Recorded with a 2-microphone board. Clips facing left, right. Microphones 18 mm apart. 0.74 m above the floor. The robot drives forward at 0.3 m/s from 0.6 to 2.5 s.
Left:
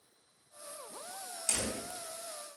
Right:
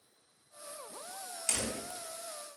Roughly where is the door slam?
Right.